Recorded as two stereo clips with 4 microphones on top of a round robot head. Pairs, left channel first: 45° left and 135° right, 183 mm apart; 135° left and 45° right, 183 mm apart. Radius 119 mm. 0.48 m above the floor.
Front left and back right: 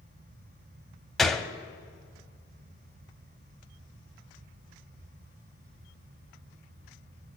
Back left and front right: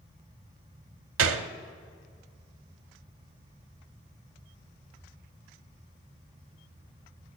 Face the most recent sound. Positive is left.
turn(degrees=-45)